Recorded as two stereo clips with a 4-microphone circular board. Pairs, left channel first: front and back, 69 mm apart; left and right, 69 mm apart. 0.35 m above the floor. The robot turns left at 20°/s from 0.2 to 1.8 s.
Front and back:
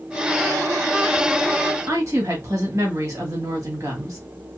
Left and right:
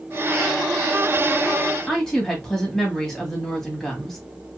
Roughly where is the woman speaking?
Behind.